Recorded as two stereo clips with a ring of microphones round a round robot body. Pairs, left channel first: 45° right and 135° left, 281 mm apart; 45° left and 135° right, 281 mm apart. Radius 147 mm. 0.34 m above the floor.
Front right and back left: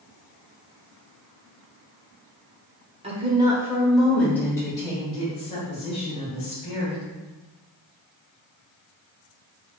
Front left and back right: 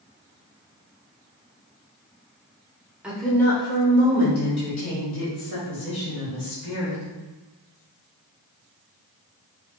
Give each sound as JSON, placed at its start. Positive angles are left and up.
{"t": 3.0, "sound": "a woman speaking", "azimuth_deg": 145, "distance_m": 1.3}